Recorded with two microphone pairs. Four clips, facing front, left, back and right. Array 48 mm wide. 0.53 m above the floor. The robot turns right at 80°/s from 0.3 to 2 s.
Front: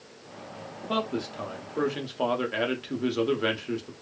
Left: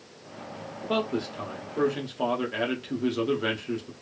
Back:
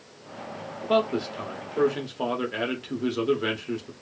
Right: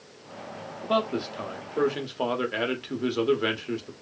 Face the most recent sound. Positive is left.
turn(degrees=-70)